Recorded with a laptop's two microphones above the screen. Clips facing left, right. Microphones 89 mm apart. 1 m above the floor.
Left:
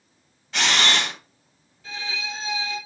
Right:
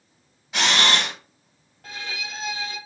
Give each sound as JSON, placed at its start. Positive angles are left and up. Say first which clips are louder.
{"t": 0.5, "sound": "a camera shutter", "louder": "right 1 dB", "side_deg": -10, "distance_m": 1.3}
{"t": 1.8, "sound": "a violin", "louder": "left 2 dB", "side_deg": -60, "distance_m": 1.1}